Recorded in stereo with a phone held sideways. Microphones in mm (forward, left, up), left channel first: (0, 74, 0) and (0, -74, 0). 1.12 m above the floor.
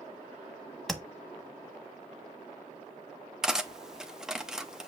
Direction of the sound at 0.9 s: Centre (ahead or behind).